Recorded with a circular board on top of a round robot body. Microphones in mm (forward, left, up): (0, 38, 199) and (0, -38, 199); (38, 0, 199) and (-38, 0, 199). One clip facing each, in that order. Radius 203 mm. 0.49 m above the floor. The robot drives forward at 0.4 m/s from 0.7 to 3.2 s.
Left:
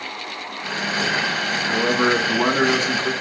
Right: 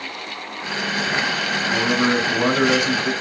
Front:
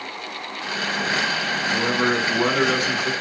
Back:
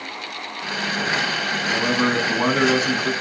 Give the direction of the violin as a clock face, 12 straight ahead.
I don't hear a violin.